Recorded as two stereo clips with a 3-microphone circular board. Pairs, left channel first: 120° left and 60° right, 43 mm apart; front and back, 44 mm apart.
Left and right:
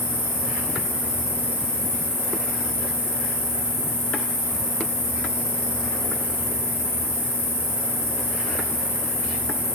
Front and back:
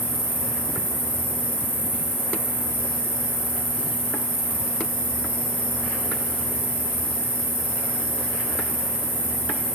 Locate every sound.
0.0 s an insect: 55° right, 5 m